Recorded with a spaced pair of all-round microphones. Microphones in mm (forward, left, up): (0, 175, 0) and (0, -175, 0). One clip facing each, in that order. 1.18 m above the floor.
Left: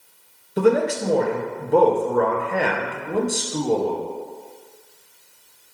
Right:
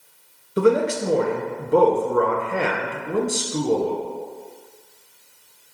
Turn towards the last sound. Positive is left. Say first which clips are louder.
# even
turn(degrees=-10)  # may be behind; listen again after turning